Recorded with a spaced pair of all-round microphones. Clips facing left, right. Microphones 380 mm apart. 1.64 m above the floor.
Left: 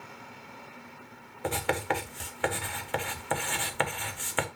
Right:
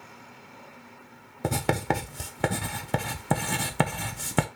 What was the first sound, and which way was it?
Writing, 55° right (ahead or behind).